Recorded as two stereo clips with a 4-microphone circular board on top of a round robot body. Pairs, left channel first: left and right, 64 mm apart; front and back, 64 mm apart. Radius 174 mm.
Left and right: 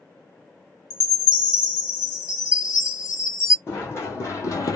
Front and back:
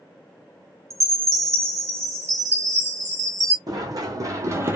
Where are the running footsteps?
145° left, 1.8 m; by 4.8 s 120° left, 0.7 m.